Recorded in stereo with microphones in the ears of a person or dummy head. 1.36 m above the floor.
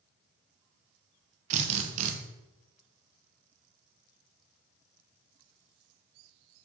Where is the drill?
40° right (ahead or behind), 0.8 m.